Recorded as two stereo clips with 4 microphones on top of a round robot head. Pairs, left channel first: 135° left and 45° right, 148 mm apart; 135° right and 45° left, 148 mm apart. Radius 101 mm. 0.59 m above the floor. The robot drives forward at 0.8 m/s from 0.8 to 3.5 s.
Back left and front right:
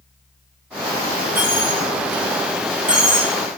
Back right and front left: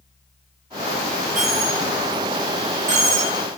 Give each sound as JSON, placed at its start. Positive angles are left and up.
{"t": 1.4, "sound": "a dropped coin", "azimuth_deg": 35, "distance_m": 6.5}